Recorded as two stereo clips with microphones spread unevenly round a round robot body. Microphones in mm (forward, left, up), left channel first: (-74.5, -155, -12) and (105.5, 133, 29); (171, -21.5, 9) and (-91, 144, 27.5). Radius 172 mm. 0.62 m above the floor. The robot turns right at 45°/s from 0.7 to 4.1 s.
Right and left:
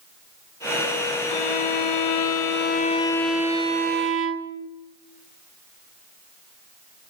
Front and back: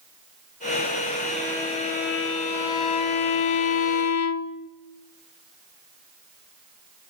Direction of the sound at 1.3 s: 125° right.